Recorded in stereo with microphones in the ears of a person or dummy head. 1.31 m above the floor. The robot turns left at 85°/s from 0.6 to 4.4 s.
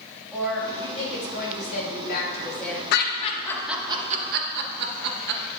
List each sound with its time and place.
0.3 s a woman speaking: 175° right, 2.5 m; by 2.8 s straight ahead, 2.5 m
2.9 s laughter: 70° left (ahead or behind), 1.5 m; by 5.4 s 55° right (ahead or behind), 1.5 m